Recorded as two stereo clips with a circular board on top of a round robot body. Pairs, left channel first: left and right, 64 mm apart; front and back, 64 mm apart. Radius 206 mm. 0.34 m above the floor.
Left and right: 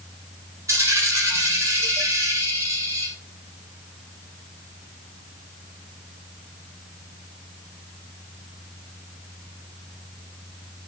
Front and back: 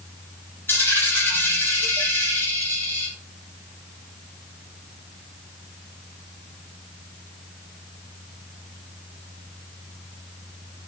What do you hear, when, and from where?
0.7 s a dropped coin: 55° right, 6 m